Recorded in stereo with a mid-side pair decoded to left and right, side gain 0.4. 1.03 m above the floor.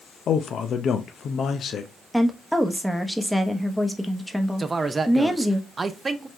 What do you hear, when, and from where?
0.3 s a man speaking: 60° left, 0.7 m
2.1 s a woman speaking: 5° right, 1.0 m
4.6 s a man speaking: 35° right, 0.6 m